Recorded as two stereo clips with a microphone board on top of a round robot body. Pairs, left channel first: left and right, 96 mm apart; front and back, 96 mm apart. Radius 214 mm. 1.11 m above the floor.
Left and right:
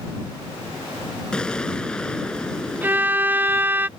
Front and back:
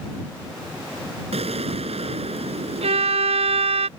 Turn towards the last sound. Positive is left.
turn(degrees=-160)